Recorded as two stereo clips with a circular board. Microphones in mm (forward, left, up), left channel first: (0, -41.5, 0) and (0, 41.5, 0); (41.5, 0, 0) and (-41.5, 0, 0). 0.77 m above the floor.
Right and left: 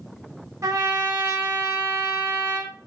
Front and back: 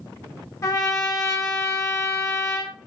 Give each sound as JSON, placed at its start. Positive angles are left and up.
{"t": 0.6, "sound": "a trumpet", "azimuth_deg": 45, "distance_m": 0.8}